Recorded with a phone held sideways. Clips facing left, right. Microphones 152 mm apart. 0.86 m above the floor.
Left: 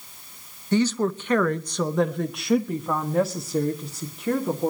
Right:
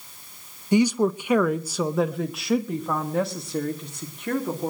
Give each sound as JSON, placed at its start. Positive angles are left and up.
{"t": 0.7, "sound": "a woman speaking", "side_deg": -15, "distance_m": 0.8}